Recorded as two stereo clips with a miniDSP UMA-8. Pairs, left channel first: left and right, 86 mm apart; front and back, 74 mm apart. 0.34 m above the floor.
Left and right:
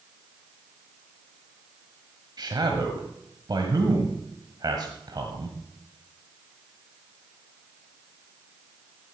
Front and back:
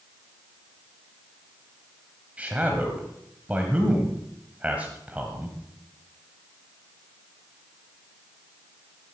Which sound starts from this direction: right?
A man speaking, at 2.4 s.